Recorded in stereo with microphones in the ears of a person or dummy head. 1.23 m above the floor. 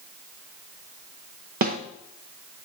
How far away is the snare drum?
About 0.6 m.